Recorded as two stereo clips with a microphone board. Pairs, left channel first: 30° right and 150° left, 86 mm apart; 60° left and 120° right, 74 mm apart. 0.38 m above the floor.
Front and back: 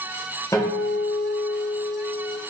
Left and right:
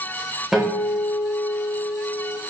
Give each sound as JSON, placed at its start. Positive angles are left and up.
{"t": 0.5, "sound": "a guitar", "azimuth_deg": -35, "distance_m": 1.0}